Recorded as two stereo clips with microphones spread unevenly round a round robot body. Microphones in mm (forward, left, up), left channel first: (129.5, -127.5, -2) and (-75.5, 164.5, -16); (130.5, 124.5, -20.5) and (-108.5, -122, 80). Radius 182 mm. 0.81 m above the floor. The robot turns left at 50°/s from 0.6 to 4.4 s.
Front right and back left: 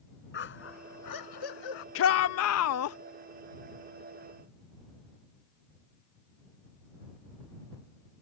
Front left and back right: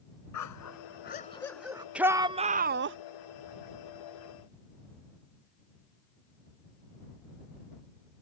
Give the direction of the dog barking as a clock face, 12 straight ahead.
12 o'clock.